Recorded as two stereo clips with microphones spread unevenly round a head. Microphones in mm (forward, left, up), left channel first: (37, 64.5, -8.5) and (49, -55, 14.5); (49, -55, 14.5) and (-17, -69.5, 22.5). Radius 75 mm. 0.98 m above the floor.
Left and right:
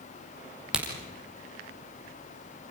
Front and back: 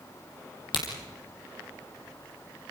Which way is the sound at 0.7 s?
Straight ahead.